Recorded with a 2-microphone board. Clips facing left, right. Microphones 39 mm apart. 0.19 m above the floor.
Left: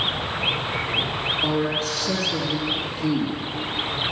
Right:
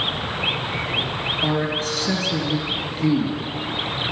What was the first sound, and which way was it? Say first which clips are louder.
A man speaking: right 2 dB; 50° right (ahead or behind).